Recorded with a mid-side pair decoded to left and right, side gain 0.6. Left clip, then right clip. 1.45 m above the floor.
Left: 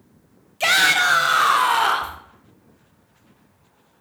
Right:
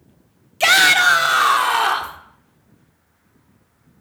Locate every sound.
0.6 s a shout: 25° right, 0.9 m; by 2.2 s straight ahead, 1.6 m